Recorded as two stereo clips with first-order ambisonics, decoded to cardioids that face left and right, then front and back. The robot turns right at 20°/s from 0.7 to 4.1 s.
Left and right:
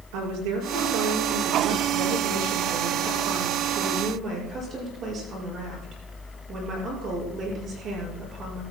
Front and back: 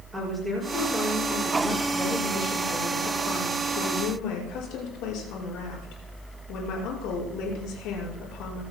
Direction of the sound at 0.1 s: 100° right.